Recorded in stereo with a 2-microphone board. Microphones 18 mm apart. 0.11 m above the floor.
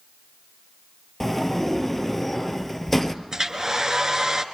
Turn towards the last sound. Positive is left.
turn(degrees=-35)  # may be behind; listen again after turning